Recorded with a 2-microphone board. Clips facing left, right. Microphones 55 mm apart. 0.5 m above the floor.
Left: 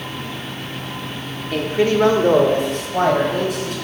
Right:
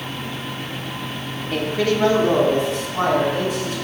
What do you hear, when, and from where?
1.5 s a man speaking: 5° right (ahead or behind), 0.7 m; by 3.7 s 75° left (ahead or behind), 3 m